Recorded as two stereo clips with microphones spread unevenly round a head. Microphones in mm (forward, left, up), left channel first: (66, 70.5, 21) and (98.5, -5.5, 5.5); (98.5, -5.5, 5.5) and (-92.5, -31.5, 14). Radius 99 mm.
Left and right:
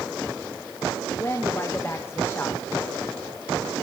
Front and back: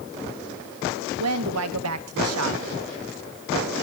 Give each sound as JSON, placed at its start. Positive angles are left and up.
{"t": 1.2, "sound": "a woman speaking", "azimuth_deg": -165, "distance_m": 2.0}